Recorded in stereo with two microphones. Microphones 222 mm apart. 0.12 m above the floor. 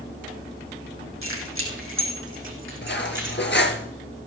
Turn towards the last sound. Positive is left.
turn(degrees=55)  # may be behind; listen again after turning